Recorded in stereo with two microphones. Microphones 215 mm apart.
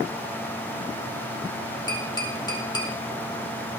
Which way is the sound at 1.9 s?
20° left (ahead or behind).